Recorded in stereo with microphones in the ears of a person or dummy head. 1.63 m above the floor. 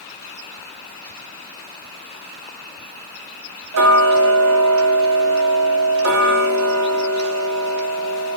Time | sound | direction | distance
3.7 | ticking | 65° right (ahead or behind) | 0.8 m